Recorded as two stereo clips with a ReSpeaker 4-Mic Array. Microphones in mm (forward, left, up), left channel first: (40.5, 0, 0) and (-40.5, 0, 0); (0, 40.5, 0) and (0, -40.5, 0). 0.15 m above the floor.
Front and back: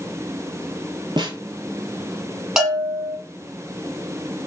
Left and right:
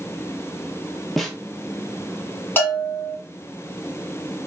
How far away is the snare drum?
About 0.7 m.